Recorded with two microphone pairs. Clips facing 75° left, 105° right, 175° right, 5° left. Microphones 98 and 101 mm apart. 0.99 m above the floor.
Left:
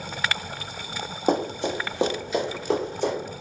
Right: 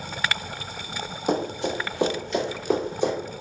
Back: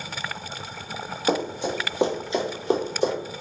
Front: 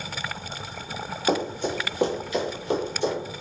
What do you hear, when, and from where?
1.3 s running footsteps: 100° left, 1.4 m; by 3.1 s 165° right, 1.2 m